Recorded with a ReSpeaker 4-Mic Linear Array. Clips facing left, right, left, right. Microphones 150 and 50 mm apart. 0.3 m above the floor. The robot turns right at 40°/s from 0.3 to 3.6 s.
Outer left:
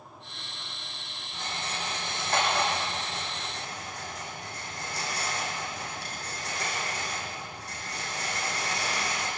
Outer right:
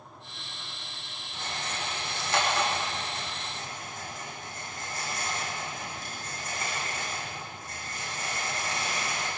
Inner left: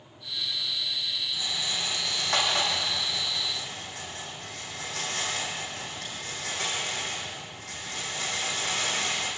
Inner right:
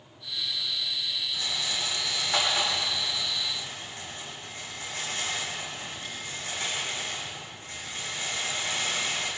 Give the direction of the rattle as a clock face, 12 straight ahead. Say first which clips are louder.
Even, inner right 1 dB; 11 o'clock.